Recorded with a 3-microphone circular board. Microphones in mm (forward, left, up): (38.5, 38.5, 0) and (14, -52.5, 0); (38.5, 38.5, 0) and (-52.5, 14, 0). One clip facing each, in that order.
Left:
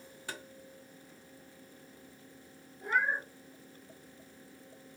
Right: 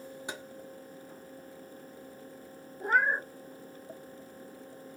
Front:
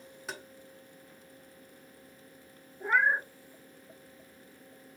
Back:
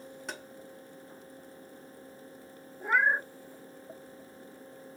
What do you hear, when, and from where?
0.3 s tapping: 70° right, 0.6 m
2.8 s a cat meowing: 75° right, 0.5 m